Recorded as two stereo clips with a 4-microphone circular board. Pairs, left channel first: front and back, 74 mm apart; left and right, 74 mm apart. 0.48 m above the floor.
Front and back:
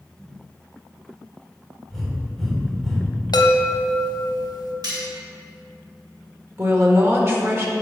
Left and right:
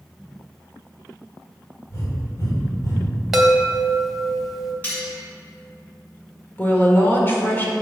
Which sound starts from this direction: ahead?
A chime, at 3.3 s.